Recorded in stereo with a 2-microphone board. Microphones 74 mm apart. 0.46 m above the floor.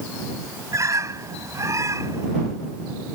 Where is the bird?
45° right (ahead or behind).